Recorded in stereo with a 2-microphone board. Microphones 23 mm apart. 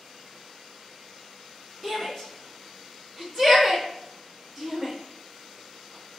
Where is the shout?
5° right (ahead or behind), 1.1 m.